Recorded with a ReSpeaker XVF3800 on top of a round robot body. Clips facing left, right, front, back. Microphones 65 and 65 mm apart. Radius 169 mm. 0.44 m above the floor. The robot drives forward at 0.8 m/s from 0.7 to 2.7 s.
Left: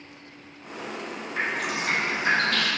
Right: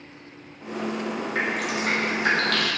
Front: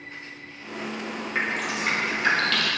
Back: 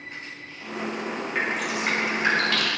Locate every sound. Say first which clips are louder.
1.4 s dripping: even, even; 85° right, 2 m; by 2.7 s 115° right, 2.5 m